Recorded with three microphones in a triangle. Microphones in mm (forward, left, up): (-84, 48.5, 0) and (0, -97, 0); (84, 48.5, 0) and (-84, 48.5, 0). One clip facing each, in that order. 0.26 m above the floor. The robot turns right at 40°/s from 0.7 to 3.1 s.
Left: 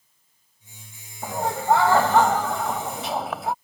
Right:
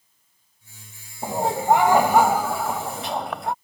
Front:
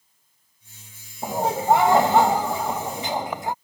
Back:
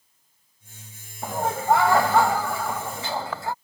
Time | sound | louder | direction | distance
1.2 | laughter | right 2 dB, front 2 dB | 40° right | ?